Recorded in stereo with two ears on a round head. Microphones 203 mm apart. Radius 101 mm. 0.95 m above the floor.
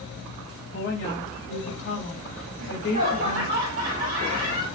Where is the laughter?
65° right (ahead or behind), 2 m.